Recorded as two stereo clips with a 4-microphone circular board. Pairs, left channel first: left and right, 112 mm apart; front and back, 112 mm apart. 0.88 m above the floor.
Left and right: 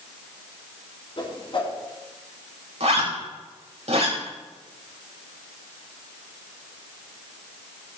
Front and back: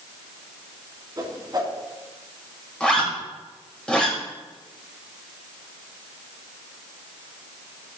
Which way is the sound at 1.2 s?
125° left.